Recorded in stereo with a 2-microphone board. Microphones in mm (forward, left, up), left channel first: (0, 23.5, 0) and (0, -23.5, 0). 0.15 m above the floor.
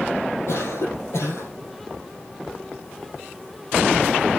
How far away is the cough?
About 4.5 m.